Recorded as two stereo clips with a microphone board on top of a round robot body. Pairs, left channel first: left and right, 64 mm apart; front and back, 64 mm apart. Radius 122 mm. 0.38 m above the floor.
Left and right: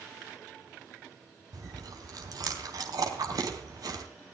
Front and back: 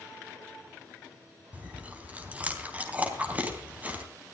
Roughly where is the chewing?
Right.